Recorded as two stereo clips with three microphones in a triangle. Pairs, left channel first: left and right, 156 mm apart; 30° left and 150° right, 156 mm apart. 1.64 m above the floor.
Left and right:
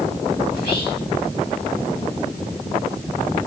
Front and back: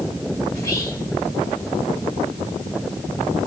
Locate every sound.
0.5 s whispering: 100° left, 1.9 m